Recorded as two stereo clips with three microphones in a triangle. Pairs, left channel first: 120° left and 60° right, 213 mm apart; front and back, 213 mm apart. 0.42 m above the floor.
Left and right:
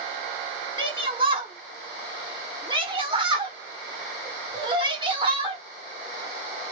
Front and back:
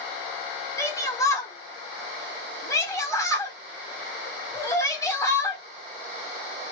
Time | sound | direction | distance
0.8 | a shout | 50° right | 1.2 m